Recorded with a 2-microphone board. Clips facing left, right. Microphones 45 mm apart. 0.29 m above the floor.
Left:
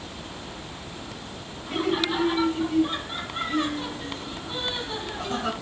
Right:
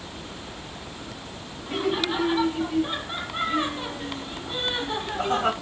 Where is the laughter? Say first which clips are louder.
Even; 5° right (ahead or behind), 2 m; by 5.5 s 40° right (ahead or behind), 1.8 m.